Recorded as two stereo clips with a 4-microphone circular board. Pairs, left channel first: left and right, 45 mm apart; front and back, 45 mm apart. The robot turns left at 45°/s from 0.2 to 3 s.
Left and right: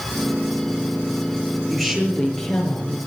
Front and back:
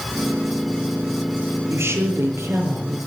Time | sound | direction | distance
1.7 | a woman speaking | straight behind | 6.5 m